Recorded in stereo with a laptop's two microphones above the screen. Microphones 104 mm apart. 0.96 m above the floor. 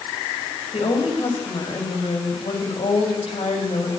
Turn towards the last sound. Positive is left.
turn(degrees=65)  # may be behind; listen again after turning